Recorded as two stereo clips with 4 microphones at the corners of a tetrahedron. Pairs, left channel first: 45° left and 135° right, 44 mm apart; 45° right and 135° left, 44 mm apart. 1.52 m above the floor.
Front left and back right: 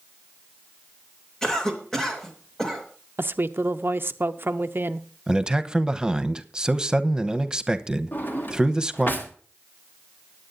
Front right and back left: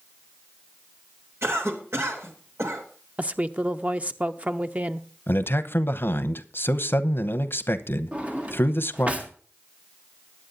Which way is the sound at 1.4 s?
120° left.